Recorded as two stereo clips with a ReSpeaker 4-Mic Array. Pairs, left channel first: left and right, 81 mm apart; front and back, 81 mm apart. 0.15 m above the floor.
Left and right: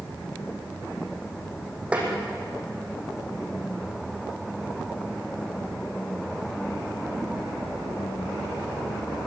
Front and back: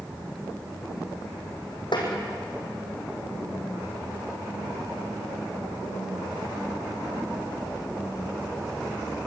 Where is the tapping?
15° right, 5.5 m.